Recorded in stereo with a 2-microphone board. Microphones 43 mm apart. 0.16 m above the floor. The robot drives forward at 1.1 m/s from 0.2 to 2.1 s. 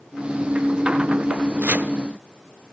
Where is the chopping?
40° right (ahead or behind), 0.8 m; by 1.9 s 30° right (ahead or behind), 1.0 m.